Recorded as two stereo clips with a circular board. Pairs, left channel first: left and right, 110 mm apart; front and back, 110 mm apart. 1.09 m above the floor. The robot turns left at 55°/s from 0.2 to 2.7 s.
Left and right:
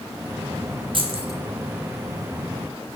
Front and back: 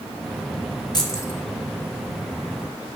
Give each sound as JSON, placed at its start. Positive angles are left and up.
{"t": 0.9, "sound": "keys jangling", "azimuth_deg": -50, "distance_m": 1.9}